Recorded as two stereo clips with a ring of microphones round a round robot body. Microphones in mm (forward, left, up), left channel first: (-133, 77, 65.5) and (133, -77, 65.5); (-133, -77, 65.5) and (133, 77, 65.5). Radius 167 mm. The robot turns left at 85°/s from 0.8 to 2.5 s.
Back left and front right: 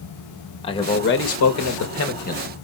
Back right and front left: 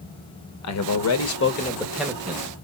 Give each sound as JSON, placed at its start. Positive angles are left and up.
{"t": 0.6, "sound": "a man speaking", "azimuth_deg": -140, "distance_m": 1.3}